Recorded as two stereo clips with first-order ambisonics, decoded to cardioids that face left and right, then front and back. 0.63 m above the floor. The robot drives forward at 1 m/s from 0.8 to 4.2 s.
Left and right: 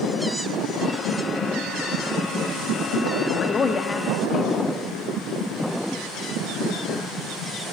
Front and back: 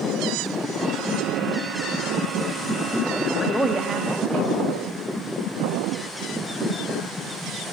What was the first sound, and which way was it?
A woman speaking, 40° left.